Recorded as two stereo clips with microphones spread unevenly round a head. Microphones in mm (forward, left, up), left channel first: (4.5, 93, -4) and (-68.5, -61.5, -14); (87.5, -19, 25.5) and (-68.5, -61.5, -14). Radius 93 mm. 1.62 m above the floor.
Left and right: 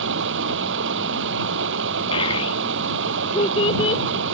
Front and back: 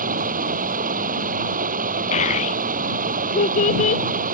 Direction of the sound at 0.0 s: 125° right.